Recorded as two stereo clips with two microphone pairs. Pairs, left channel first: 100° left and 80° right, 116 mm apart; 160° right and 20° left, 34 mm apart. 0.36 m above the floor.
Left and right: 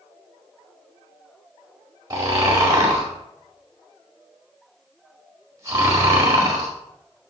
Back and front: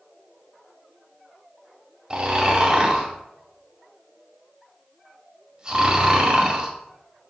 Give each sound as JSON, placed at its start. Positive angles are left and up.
{"t": 2.1, "sound": "snoring", "azimuth_deg": -30, "distance_m": 1.8}